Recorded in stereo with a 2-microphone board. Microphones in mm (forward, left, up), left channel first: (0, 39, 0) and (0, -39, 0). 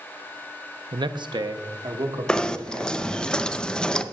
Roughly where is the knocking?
Centre.